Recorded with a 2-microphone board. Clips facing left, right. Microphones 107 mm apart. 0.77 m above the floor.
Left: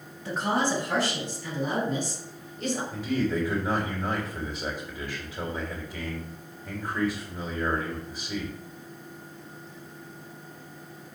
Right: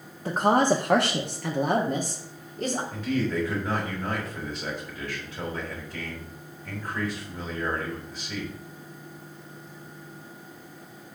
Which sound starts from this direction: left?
A man speaking, at 2.9 s.